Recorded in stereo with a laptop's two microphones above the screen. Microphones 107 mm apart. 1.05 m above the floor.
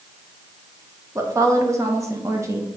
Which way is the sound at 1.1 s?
30° right (ahead or behind).